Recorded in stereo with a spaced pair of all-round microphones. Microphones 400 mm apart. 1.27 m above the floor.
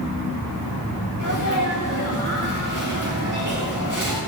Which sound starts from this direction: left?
A sneeze, at 1.2 s.